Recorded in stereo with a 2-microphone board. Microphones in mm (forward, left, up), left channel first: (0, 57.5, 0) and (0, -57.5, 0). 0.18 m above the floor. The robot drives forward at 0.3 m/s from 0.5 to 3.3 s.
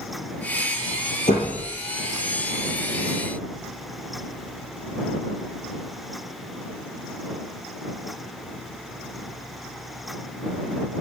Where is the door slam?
80° left, 8 m.